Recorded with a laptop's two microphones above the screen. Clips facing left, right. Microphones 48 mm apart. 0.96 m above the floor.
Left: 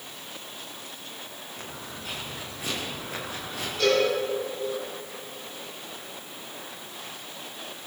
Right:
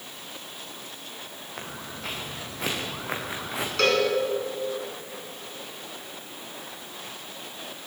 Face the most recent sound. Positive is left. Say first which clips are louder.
# even
turn(degrees=-80)